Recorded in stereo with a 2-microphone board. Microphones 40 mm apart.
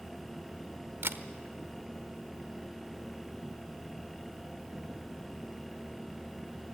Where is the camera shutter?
85° right, 1.0 m.